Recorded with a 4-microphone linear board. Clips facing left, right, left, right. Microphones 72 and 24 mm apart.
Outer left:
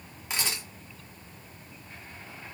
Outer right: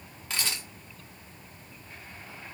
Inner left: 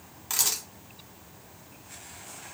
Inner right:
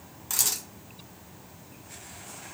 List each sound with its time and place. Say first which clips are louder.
0.3 s a camera shutter: outer left 1 dB, inner left 1 dB; 15° left (ahead or behind), 0.9 m